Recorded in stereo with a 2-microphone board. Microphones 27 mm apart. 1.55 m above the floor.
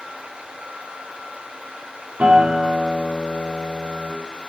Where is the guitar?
45° right (ahead or behind), 3.5 m.